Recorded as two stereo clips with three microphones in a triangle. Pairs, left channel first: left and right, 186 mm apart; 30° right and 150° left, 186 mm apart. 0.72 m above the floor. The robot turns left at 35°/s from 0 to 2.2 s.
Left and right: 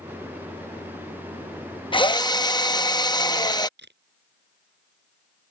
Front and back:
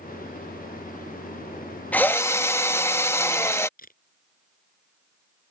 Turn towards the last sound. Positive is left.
turn(degrees=-70)